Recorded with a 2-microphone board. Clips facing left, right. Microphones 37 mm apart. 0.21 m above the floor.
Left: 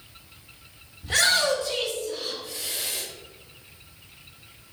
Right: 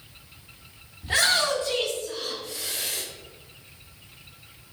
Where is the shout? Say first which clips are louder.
Left 1 dB; 20° right (ahead or behind), 1.2 m; by 3.0 s 55° right (ahead or behind), 3 m.